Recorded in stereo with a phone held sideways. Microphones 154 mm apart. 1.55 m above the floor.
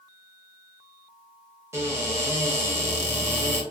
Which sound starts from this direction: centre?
A cupboard door, at 1.7 s.